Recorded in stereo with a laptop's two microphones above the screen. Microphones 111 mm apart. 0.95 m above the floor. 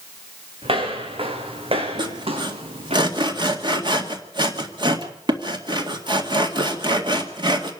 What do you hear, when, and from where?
0.6 s footsteps: 55° right (ahead or behind), 4 m; by 3.0 s 60° right (ahead or behind), 3 m
2.0 s sawing: 45° right (ahead or behind), 1.9 m